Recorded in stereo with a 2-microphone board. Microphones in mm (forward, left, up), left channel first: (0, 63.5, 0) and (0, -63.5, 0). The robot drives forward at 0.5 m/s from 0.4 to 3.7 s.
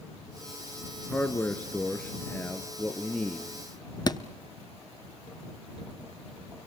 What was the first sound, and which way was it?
A man speaking, 15° left (ahead or behind).